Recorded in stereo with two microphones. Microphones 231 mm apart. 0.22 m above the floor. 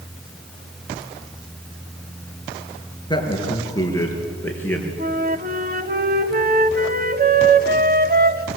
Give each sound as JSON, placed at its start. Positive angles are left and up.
{"t": 3.1, "sound": "a man speaking", "side_deg": 20, "distance_m": 4.0}
{"t": 5.0, "sound": "a flute", "side_deg": -40, "distance_m": 1.0}